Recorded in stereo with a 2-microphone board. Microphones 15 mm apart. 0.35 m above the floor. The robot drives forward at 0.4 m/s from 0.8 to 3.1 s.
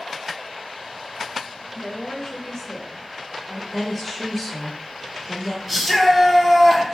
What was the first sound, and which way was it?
A woman speaking, 25° left (ahead or behind).